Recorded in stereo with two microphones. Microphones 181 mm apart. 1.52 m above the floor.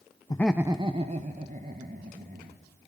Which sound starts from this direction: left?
Laughter, at 0.3 s.